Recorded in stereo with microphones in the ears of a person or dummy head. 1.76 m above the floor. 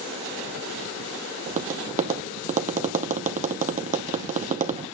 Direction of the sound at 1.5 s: 35° right (ahead or behind).